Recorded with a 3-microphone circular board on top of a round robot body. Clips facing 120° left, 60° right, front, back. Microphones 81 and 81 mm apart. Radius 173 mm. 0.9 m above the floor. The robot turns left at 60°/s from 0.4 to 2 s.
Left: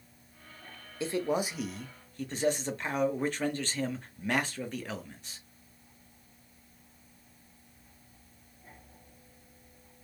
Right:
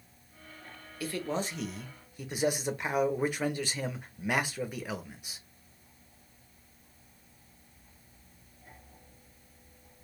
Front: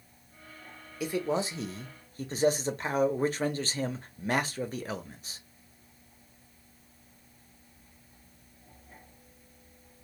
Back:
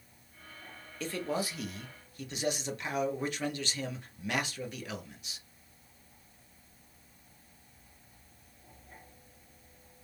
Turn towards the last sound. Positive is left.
turn(degrees=15)